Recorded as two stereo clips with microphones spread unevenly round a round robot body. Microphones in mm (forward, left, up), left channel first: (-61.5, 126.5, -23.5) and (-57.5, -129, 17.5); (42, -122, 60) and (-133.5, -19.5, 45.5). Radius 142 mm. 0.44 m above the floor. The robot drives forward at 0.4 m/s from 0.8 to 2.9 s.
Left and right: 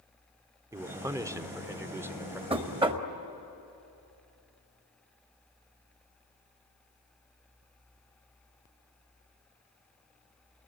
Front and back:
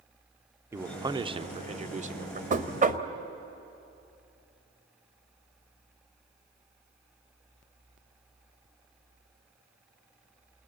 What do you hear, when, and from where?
0.7 s a man speaking: 170° right, 0.7 m; by 2.4 s 175° right, 1.1 m
2.5 s knocking: 160° right, 1.4 m; by 3.1 s 165° right, 1.5 m